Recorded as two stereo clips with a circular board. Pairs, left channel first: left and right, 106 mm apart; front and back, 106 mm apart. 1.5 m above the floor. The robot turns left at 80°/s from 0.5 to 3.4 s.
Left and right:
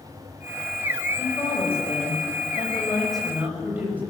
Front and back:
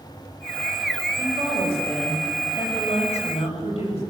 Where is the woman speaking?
160° left, 7.5 m; by 4.0 s 15° right, 7.5 m.